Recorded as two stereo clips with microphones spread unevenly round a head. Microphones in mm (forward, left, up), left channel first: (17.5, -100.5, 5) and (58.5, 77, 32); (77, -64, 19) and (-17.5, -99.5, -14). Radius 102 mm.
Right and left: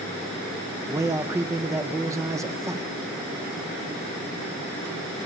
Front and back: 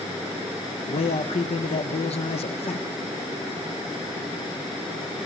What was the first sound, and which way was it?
A man speaking, straight ahead.